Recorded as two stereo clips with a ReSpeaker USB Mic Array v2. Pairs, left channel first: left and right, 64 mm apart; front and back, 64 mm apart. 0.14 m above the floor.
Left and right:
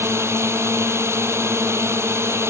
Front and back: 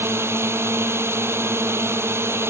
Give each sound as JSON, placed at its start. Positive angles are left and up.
{"t": 0.0, "sound": "a drone", "azimuth_deg": -135}